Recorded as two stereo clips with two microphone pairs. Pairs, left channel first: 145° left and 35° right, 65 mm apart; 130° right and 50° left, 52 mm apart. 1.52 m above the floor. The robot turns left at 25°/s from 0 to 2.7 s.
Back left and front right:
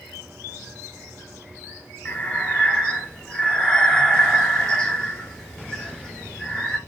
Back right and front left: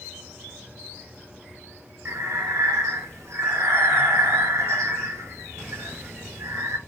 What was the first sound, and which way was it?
Breathing, 80° left.